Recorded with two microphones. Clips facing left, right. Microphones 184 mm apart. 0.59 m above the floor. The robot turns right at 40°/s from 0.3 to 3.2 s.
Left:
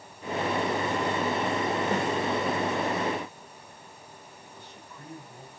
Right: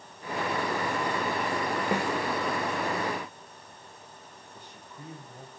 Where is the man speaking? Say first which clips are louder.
Right 1 dB; 25° right (ahead or behind), 3 m.